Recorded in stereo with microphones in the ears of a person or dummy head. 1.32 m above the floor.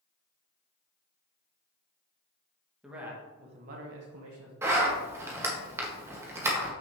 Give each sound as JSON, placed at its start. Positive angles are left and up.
{"t": 2.8, "sound": "a man speaking", "side_deg": -5, "distance_m": 1.7}
{"t": 4.6, "sound": "a zipper", "side_deg": -15, "distance_m": 1.4}